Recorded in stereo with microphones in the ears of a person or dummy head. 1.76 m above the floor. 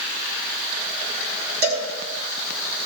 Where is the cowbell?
55° right (ahead or behind), 9.5 m.